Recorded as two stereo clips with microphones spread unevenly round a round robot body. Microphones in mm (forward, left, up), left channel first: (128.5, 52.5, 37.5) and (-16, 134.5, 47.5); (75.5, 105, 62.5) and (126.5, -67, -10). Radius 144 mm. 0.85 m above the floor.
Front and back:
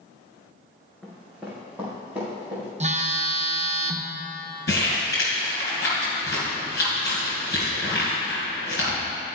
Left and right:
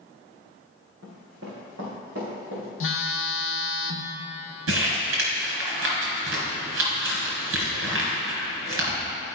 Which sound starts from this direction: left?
A phone buzzing, at 2.8 s.